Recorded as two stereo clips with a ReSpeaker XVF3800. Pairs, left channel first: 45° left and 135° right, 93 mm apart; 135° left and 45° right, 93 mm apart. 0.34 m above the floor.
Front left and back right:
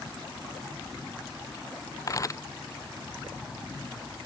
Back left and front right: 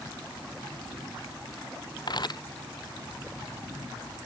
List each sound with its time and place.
2.1 s a camera shutter: 100° left